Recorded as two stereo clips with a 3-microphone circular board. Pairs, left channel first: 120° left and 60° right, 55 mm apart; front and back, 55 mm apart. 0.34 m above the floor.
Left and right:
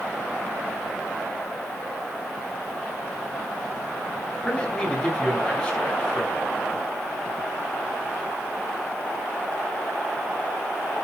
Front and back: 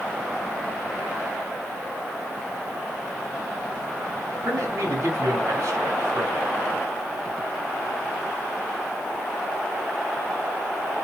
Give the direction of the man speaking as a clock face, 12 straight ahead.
6 o'clock.